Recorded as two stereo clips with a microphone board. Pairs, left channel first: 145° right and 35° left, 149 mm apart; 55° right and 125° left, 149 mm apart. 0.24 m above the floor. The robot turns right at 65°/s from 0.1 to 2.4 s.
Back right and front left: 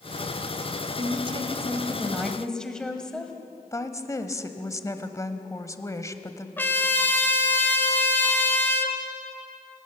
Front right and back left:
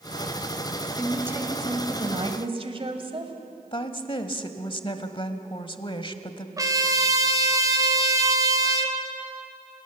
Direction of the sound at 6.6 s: 155° left.